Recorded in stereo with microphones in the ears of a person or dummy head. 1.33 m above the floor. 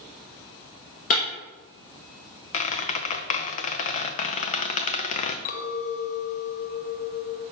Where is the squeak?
40° left (ahead or behind), 0.6 m.